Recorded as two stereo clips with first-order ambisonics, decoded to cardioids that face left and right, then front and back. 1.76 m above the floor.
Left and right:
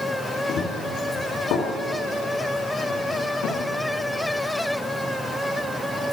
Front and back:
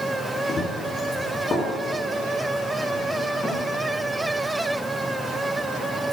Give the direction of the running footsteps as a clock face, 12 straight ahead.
10 o'clock.